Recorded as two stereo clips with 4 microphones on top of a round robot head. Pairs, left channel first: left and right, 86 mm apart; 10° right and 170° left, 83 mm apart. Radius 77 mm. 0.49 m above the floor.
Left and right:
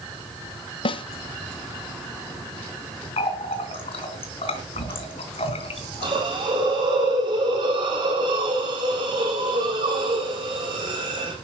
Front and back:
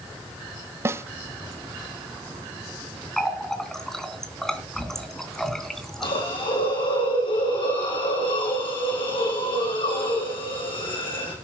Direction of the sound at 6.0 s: 45° right.